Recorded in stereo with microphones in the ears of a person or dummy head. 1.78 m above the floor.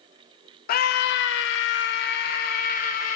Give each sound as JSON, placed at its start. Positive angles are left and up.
{"t": 0.7, "sound": "a scream", "side_deg": 45, "distance_m": 1.1}